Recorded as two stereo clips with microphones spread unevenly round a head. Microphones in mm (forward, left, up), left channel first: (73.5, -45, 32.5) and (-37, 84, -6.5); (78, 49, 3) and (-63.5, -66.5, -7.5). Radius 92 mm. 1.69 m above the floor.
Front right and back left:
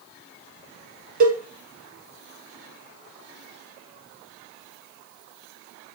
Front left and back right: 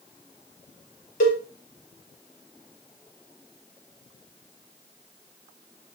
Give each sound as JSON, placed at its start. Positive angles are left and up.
{"t": 1.2, "sound": "a cowbell", "azimuth_deg": 90, "distance_m": 1.2}